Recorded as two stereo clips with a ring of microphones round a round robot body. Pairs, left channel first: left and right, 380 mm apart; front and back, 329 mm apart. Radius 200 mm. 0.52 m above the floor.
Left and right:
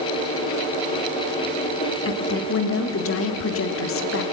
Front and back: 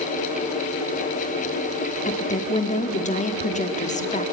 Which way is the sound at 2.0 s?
60° left.